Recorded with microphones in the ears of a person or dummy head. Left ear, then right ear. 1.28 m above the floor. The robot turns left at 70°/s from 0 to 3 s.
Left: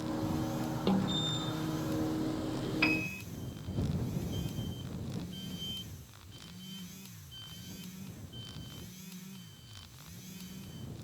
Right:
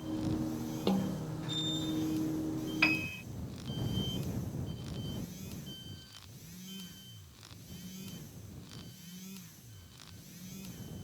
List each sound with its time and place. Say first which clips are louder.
0.9 s a snare drum: left 3 dB; straight behind; by 1.3 s 150° left
2.8 s a piano: right 1 dB; 10° right (ahead or behind); by 3.2 s 5° left (ahead or behind)